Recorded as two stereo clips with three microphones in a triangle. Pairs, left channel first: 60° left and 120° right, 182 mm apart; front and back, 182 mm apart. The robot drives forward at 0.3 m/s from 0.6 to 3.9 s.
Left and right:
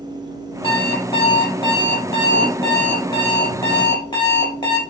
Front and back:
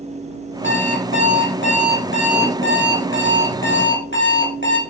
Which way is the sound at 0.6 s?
5° right.